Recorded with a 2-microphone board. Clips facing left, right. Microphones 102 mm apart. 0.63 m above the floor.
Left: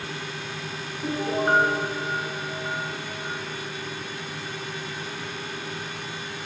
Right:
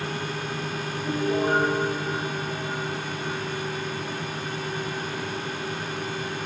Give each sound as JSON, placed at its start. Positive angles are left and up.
{"t": 1.0, "sound": "a piano", "side_deg": 60, "distance_m": 9.5}